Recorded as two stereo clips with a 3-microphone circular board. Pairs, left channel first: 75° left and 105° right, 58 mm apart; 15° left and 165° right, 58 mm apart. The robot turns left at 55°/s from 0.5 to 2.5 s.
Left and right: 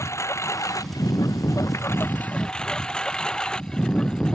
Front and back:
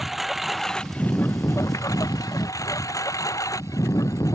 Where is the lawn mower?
105° left; by 4.3 s 5° right.